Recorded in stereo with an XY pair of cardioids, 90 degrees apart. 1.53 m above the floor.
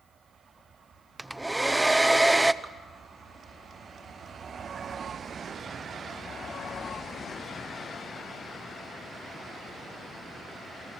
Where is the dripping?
20° right, 3 m.